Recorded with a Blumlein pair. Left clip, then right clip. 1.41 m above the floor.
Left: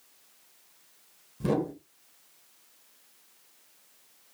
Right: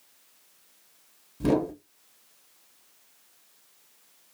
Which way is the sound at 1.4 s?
10° right.